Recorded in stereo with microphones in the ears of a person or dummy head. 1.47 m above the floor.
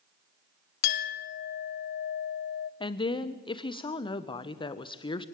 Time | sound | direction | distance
0.8 | a clink | 50° left (ahead or behind) | 0.6 m
2.8 | a woman speaking | 30° left (ahead or behind) | 1.2 m